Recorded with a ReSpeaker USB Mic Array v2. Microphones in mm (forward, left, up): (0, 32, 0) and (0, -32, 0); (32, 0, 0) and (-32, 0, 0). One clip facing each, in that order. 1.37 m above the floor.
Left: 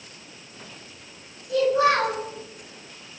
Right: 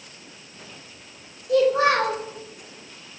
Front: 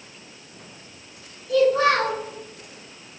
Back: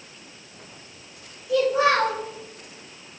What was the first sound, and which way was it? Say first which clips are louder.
A child speaking: right 1 dB, front 2 dB; 95° right.